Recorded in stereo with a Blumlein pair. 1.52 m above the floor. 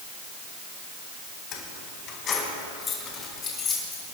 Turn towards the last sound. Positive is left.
turn(degrees=20)